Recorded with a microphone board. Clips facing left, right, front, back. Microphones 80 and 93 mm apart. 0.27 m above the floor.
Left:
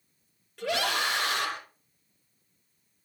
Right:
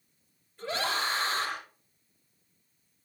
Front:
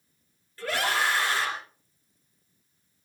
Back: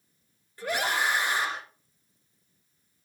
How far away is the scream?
About 6.5 m.